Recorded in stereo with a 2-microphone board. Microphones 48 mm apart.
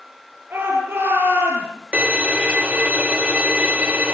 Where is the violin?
30° right (ahead or behind), 1.1 m.